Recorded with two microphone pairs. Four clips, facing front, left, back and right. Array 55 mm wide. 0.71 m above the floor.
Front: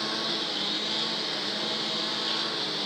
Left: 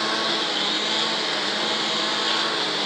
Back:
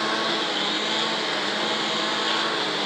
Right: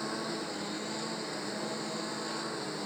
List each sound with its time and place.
0.0 s a lawn mower: 145° left